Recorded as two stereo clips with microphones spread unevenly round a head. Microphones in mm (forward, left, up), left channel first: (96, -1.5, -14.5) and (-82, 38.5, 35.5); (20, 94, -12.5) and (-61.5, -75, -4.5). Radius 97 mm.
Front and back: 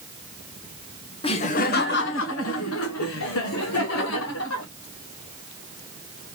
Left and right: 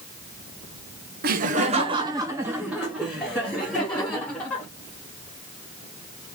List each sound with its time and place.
1.2 s laughter: 85° right, 0.7 m; by 4.7 s 15° right, 2.0 m